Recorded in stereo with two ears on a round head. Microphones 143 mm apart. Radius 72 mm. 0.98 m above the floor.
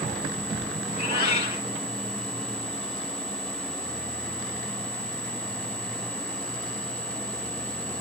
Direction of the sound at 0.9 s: 35° left (ahead or behind).